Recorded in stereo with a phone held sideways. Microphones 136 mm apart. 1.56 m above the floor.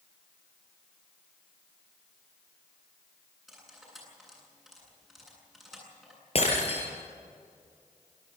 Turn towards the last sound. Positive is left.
turn(degrees=45)  # may be behind; listen again after turning